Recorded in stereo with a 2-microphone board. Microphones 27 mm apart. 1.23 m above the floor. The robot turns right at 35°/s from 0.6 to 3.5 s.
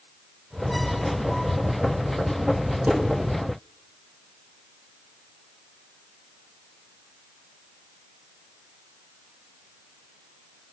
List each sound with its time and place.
2.9 s dishes clattering: 80° right, 3.5 m; by 3.0 s 85° right, 3.5 m